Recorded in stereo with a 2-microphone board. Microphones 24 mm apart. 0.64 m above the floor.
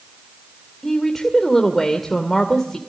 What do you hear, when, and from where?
0.8 s a woman speaking: 15° left (ahead or behind), 2 m